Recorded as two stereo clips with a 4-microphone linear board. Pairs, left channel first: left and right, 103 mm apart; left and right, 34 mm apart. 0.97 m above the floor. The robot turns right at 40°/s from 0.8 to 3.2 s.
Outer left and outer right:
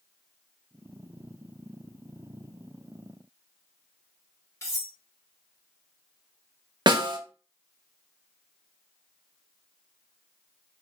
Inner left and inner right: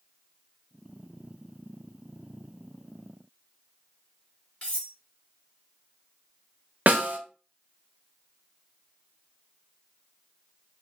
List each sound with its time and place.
4.6 s cutlery clinking: 30° left (ahead or behind), 1.3 m
6.9 s a snare drum: 50° right (ahead or behind), 0.6 m